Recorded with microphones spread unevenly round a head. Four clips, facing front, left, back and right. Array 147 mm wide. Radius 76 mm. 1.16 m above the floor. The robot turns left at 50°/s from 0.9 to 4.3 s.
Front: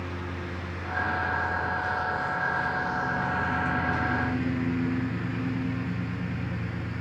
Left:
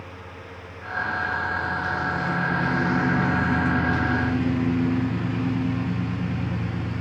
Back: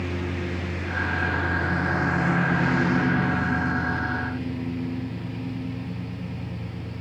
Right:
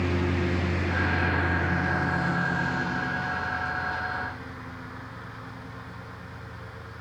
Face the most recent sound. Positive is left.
turn(degrees=80)